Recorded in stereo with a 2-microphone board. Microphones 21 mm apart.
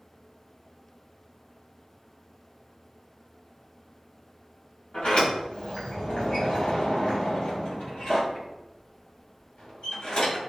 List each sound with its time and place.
4.9 s a sliding door: 65° left (ahead or behind), 1.8 m